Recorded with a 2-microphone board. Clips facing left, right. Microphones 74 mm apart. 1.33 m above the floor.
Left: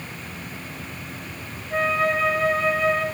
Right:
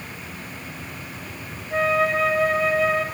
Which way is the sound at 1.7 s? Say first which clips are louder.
Right 1 dB; 5° right (ahead or behind).